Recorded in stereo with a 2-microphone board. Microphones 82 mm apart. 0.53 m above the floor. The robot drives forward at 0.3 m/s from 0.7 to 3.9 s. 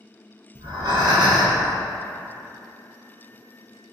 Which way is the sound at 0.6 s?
70° right (ahead or behind).